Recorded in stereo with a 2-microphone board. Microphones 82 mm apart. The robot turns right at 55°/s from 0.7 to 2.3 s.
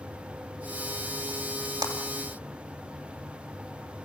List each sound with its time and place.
1.8 s a clap: 45° right (ahead or behind), 3 m; by 1.9 s 40° right (ahead or behind), 3 m